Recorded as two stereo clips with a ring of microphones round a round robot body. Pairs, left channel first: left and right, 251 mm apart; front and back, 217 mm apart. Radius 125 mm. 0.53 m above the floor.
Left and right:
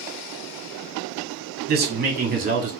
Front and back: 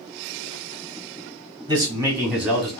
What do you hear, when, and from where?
1.7 s a man speaking: 115° right, 1.5 m; by 2.7 s 85° right, 1.3 m